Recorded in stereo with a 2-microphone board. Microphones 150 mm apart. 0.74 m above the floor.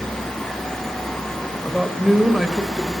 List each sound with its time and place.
1.6 s a man speaking: centre (ahead or behind), 2.5 m